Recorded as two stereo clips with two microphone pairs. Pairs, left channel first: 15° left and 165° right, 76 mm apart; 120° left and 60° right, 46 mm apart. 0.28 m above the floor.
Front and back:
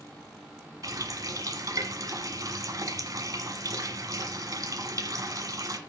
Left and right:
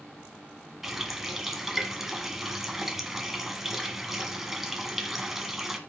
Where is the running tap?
140° right, 1.4 m.